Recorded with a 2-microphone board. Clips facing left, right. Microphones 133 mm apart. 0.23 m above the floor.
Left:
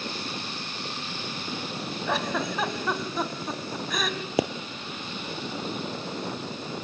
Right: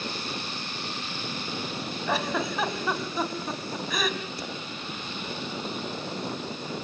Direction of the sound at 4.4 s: 80° left.